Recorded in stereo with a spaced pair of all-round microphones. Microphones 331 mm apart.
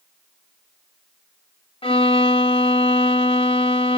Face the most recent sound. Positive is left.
turn(degrees=15)  # may be behind; listen again after turning